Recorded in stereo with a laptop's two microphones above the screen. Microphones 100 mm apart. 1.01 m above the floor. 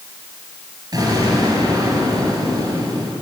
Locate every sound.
0.9 s an explosion: 45° right (ahead or behind), 3.5 m